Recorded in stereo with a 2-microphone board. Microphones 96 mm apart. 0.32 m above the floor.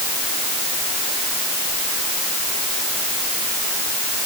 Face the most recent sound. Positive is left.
No sound to turn to.